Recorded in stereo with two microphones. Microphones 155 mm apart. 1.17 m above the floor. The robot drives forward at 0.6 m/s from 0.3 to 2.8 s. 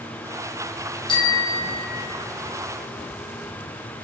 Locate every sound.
1.1 s a bicycle bell: 30° left (ahead or behind), 2.5 m; by 2.2 s 40° left (ahead or behind), 1.8 m